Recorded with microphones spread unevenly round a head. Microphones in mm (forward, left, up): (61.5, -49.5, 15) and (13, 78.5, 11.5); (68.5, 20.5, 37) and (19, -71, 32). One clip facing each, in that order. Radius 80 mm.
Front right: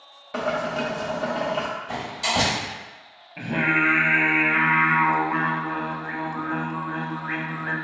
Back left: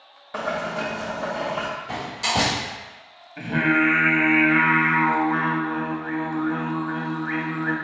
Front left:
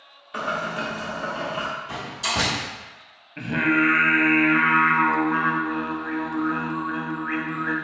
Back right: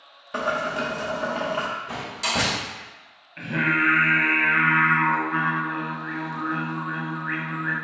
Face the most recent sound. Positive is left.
turn(degrees=15)